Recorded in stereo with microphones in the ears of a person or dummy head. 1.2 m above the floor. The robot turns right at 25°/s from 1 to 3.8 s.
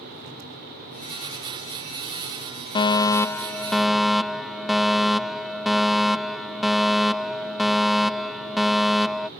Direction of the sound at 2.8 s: 25° left (ahead or behind).